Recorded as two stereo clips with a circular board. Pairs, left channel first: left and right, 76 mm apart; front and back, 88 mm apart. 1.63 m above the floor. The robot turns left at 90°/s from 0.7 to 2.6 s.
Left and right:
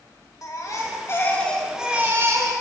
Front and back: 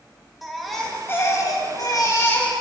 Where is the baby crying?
90° left, 1.2 m; by 2.5 s 75° right, 1.2 m.